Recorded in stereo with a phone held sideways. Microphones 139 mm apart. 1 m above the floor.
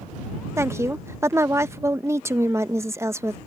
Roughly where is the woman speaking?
Centre.